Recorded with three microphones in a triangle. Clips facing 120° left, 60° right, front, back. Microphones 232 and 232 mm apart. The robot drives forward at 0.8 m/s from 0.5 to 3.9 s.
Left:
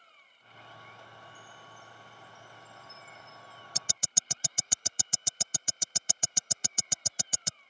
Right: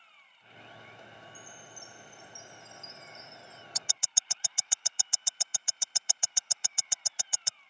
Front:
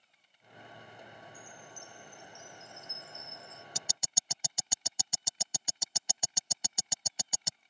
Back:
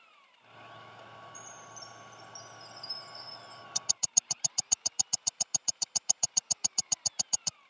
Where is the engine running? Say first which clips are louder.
Left 1 dB, back 2 dB; 170° left.